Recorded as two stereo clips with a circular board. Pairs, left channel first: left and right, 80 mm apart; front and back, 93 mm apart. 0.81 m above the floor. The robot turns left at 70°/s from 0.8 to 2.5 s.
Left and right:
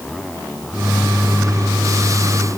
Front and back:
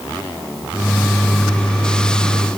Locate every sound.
Only background noise.